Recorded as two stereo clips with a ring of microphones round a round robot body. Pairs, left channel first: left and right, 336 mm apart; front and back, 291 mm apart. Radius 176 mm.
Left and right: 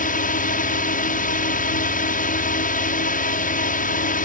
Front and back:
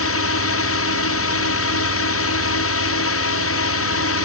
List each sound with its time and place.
0.0 s a drone: 25° left